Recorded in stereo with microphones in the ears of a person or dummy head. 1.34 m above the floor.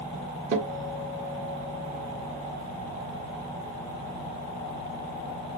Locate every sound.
0.5 s a guitar: 45° right (ahead or behind), 1.2 m